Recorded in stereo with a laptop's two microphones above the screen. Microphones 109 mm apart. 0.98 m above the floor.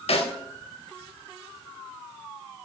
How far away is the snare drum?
About 0.5 m.